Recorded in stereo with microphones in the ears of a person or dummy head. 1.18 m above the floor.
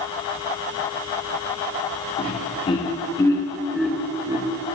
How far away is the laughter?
About 1.8 m.